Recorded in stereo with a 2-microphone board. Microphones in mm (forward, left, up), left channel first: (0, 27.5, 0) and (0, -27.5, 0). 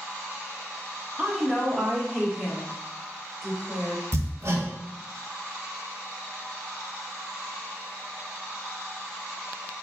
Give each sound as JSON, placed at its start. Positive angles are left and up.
{"t": 1.2, "sound": "a woman speaking", "side_deg": -20, "distance_m": 0.7}
{"t": 4.1, "sound": "hammering", "side_deg": -60, "distance_m": 0.7}